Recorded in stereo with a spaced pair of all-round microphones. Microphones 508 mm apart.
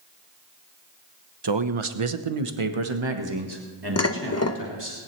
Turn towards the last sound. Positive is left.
turn(degrees=30)  # may be behind; listen again after turning